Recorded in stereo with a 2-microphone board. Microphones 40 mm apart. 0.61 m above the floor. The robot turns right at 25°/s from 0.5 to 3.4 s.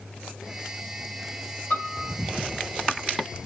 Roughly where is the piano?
Left.